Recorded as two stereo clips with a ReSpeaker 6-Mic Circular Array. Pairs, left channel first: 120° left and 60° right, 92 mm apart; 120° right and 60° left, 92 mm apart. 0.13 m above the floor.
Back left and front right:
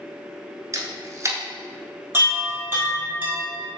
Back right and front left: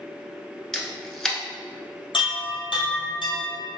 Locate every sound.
0.7 s a camera shutter: 40° right, 0.8 m
2.1 s a chime: 125° right, 1.5 m